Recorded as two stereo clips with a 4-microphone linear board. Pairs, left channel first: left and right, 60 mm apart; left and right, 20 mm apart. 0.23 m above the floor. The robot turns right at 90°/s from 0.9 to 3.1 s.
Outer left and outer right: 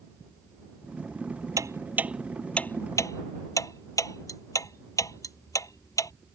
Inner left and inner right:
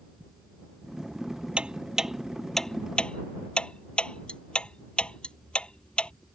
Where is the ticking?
70° right (ahead or behind); by 6.1 s 65° left (ahead or behind).